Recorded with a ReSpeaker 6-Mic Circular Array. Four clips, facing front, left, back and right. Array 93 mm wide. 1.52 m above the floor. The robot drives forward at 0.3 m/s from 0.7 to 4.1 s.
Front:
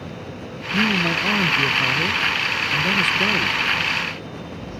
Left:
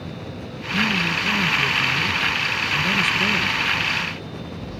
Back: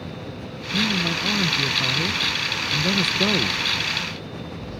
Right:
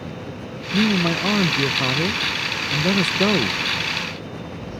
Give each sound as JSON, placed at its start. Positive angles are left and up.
{"t": 0.7, "sound": "a man speaking", "azimuth_deg": -65}